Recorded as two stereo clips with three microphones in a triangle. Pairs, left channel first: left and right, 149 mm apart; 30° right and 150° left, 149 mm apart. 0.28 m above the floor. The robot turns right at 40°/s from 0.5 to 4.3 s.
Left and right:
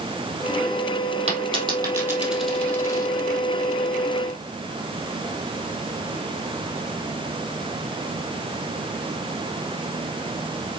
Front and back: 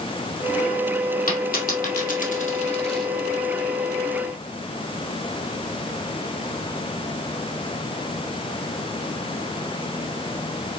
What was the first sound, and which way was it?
A dropped coin, 45° right.